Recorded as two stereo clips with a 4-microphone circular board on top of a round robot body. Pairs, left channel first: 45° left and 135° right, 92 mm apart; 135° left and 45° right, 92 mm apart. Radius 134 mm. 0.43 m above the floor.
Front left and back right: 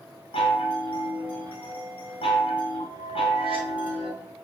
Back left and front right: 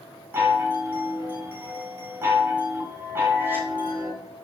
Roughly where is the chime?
Ahead left.